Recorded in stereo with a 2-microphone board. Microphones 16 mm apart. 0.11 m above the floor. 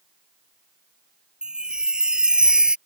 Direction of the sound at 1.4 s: 60° right (ahead or behind).